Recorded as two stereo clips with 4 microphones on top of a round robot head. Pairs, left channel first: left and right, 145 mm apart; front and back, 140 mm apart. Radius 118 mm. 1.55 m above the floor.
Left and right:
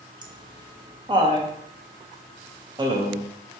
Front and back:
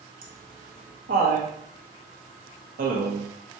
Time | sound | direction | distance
0.2 | laughter | 150° right | 0.9 m